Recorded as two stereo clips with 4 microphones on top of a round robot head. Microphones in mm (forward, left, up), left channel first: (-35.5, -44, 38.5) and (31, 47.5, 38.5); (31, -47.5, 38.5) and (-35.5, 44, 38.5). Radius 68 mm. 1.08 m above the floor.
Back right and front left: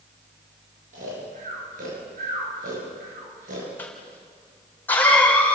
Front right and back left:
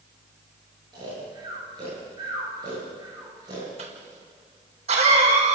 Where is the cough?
160° left, 5 m.